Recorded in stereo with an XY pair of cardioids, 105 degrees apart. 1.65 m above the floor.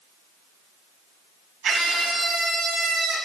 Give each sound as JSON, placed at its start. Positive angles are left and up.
{"t": 1.6, "sound": "a scream", "azimuth_deg": -60, "distance_m": 1.3}